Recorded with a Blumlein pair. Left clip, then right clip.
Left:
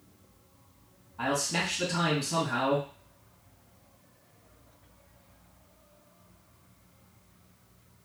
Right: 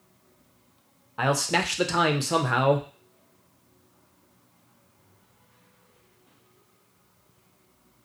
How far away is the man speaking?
About 0.6 m.